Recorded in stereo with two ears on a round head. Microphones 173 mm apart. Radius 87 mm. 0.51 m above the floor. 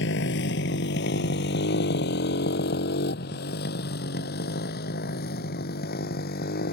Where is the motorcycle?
65° left (ahead or behind); by 6.7 s 55° left (ahead or behind).